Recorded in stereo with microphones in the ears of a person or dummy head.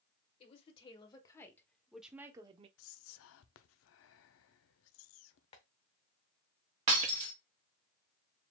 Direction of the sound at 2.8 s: 80° left.